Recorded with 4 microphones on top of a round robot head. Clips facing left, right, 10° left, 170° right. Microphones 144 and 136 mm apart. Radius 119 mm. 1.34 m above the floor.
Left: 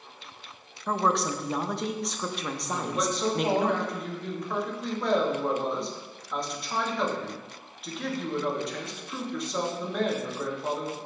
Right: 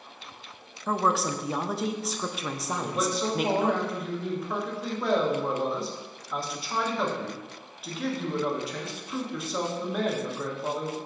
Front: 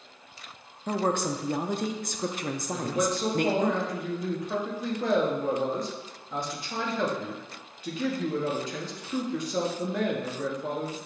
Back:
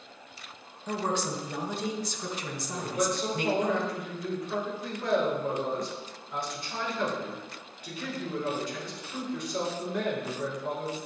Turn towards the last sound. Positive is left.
turn(degrees=-5)